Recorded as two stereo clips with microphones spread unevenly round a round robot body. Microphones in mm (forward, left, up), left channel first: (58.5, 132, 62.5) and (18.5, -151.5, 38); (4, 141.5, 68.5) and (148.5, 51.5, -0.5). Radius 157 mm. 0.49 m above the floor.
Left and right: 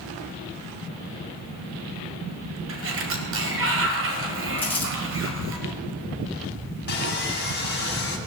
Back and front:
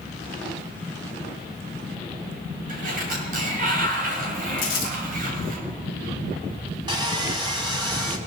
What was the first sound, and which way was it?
A sliding door, 60° right.